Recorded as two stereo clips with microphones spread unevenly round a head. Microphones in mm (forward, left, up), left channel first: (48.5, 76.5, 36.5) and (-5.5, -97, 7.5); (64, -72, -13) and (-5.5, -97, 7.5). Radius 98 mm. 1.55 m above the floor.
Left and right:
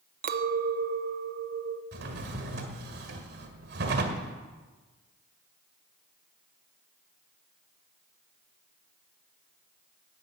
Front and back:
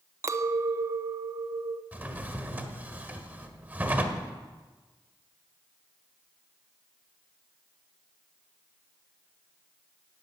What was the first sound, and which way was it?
A clink, 150° right.